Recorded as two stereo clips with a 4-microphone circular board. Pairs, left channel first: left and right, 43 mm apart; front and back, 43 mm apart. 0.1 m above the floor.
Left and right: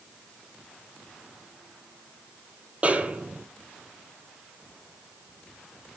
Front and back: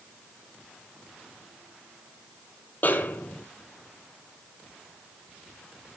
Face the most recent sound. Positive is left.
turn(degrees=-35)